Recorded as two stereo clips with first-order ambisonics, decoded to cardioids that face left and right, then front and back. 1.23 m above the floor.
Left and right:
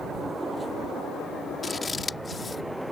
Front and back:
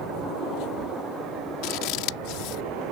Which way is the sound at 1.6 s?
15° left.